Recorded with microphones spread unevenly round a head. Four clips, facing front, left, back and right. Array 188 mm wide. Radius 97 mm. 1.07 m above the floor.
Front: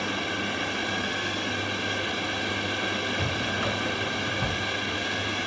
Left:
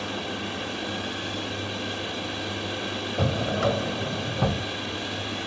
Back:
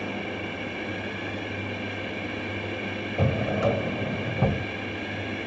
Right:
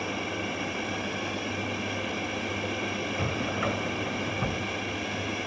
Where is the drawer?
145° left.